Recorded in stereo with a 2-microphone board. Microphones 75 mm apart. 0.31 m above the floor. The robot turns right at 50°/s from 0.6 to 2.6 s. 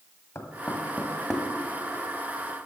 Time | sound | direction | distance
0.3 | knocking | 35° left (ahead or behind) | 1.6 m